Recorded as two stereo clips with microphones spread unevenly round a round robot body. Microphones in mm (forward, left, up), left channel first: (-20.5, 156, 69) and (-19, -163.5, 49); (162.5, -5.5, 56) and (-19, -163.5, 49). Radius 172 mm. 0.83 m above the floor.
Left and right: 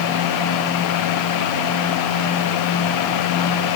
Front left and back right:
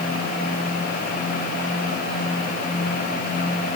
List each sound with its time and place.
Only background noise.